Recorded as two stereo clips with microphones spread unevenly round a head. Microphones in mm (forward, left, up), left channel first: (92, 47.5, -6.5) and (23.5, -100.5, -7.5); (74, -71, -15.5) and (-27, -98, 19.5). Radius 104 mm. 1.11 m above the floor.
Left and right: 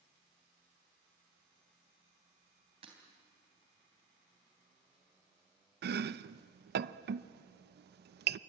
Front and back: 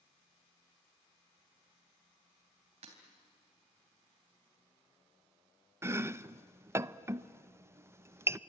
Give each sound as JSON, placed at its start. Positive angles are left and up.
{"t": 2.8, "sound": "breaking glass", "azimuth_deg": 180, "distance_m": 3.0}
{"t": 5.8, "sound": "chopping", "azimuth_deg": -95, "distance_m": 0.7}